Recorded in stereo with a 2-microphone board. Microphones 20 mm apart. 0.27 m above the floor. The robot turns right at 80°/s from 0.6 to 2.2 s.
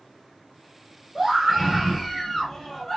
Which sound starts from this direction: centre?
A scream, at 1.1 s.